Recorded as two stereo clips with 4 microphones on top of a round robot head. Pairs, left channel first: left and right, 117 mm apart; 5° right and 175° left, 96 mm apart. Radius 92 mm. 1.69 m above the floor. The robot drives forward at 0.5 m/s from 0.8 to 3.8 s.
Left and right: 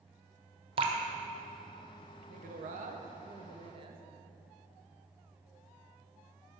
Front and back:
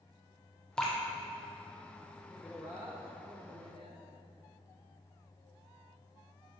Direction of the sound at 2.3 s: 85° right.